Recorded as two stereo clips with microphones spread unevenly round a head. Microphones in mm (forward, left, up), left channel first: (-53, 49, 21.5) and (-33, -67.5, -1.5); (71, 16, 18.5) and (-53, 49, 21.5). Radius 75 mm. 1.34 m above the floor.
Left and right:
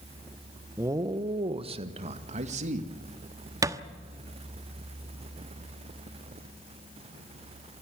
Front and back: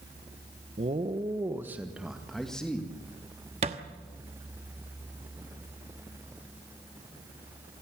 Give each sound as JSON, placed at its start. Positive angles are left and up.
{"t": 0.8, "sound": "a man speaking", "azimuth_deg": -150, "distance_m": 1.2}
{"t": 3.6, "sound": "a thud", "azimuth_deg": -150, "distance_m": 1.2}